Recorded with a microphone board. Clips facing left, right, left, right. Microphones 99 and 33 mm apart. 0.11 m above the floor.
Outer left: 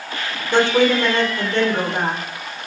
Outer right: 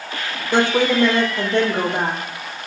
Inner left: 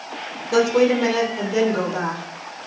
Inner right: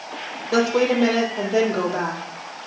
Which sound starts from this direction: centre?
A woman speaking, at 0.5 s.